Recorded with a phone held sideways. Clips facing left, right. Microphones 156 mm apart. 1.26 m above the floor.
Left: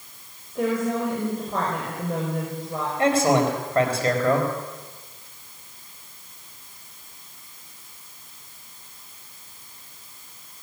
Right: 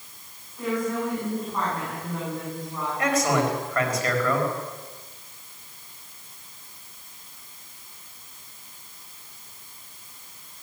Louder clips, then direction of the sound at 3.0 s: Left 4 dB; 30° left (ahead or behind).